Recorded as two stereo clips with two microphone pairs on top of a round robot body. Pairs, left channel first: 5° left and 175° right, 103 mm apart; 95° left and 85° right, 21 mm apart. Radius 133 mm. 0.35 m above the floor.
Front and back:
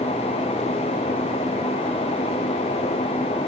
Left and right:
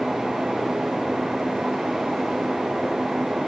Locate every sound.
Only background noise.